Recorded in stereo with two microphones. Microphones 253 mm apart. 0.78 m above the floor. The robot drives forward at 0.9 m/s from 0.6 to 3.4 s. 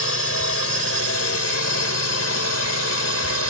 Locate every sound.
0.0 s a drone: 65° left (ahead or behind); by 3.5 s 70° left (ahead or behind)